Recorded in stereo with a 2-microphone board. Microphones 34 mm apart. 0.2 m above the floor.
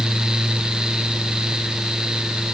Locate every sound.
Only background noise.